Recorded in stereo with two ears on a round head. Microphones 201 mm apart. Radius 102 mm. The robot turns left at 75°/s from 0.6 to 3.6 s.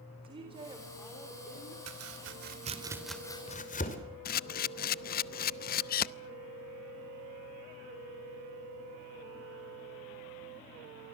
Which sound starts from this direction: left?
A camera shutter, at 4.2 s.